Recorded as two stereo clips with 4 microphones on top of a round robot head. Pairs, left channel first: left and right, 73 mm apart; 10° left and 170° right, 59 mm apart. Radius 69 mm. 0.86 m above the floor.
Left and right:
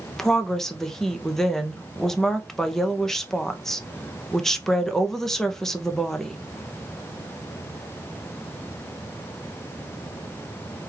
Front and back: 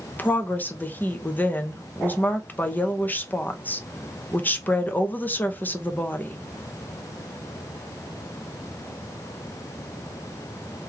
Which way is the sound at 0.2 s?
10° left.